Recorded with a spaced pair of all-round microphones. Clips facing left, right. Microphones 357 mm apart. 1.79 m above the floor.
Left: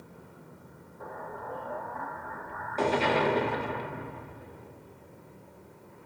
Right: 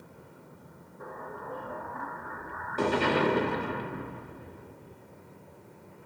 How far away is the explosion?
About 0.8 m.